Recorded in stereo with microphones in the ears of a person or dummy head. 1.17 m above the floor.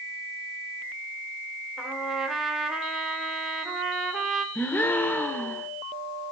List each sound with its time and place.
1.8 s a trumpet: centre (ahead or behind), 2.5 m
4.5 s a gasp: 10° left (ahead or behind), 1.1 m